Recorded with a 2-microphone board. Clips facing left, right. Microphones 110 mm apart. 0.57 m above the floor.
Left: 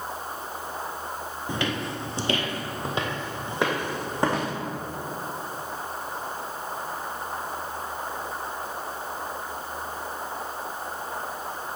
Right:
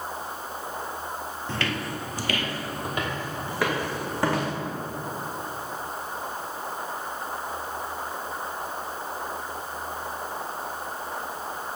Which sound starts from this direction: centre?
Footsteps, at 1.5 s.